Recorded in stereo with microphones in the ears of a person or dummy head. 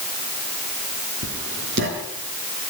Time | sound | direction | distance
1.2 | writing | 60° right (ahead or behind) | 4.5 m